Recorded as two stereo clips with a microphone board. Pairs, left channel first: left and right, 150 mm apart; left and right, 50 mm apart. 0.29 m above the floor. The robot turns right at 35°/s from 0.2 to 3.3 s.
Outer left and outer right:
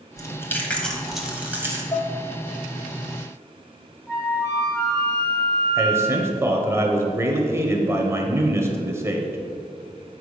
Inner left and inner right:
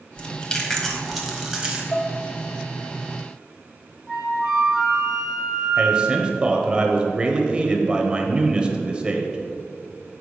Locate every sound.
0.2 s chewing: 25° left (ahead or behind), 1.2 m; by 1.8 s 20° right (ahead or behind), 1.2 m
1.9 s dishes clattering: 35° left (ahead or behind), 0.8 m
4.1 s a flute: 15° left (ahead or behind), 2.5 m
5.8 s a man speaking: 20° right (ahead or behind), 1.0 m